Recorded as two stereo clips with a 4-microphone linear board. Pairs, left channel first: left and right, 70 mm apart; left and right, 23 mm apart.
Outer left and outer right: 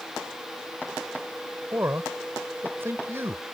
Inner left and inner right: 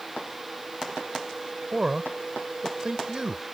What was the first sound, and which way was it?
A man speaking, 35° right (ahead or behind).